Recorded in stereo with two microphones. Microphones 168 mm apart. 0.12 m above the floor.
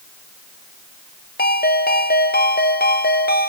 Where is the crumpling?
I don't hear crumpling.